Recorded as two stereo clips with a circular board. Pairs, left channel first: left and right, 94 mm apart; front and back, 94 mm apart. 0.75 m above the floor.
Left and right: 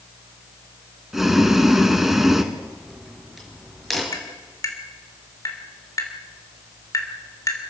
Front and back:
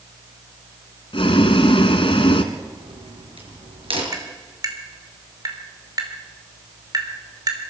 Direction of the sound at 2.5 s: Straight behind.